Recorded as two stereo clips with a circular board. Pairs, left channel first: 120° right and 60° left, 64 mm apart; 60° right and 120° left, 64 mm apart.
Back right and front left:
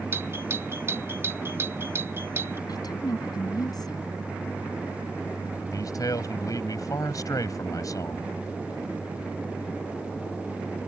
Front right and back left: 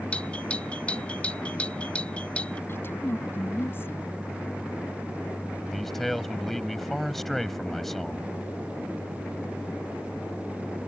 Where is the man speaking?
145° right.